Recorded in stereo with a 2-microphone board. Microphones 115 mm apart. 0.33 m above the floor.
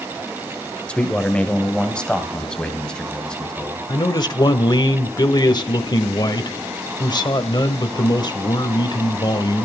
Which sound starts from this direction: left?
A man speaking, at 3.9 s.